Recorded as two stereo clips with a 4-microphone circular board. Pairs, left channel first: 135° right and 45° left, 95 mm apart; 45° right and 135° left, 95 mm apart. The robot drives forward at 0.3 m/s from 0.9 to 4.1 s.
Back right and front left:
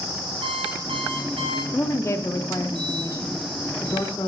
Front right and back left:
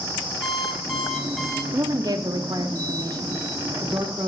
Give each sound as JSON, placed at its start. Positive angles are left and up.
{"t": 0.4, "sound": "an alarm clock", "azimuth_deg": 45, "distance_m": 2.5}
{"t": 1.7, "sound": "a woman speaking", "azimuth_deg": 170, "distance_m": 0.7}